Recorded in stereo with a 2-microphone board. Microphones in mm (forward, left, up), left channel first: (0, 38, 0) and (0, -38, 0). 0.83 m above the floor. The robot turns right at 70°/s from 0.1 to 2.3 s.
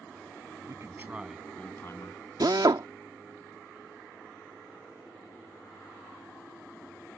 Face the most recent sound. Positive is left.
turn(degrees=-70)  # may be behind; listen again after turning